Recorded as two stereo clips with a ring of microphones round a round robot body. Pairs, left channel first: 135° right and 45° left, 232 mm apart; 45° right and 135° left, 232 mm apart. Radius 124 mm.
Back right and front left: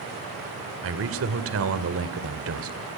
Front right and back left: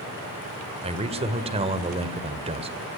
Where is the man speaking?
70° left, 2.0 m.